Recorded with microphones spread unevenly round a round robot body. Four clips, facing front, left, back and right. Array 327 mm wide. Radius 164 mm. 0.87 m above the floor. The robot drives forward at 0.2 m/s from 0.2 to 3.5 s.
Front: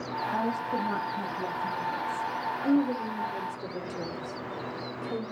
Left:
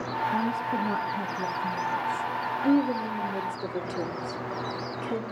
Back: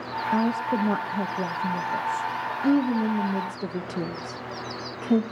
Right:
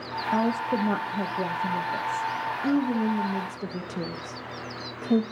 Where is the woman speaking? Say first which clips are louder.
Right 6 dB, back 6 dB; 145° right, 1.7 m; by 5.2 s 155° right, 2.5 m.